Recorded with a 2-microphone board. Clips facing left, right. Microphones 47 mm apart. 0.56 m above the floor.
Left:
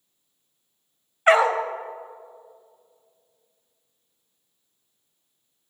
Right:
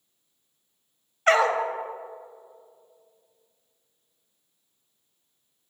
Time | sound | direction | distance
1.3 | a dog barking | 15° left (ahead or behind) | 0.7 m